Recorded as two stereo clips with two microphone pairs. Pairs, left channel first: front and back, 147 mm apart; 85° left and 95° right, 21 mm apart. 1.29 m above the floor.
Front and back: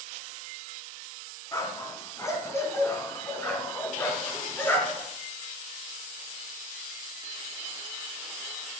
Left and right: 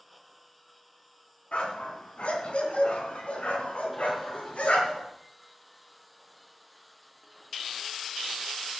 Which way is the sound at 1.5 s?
65° left.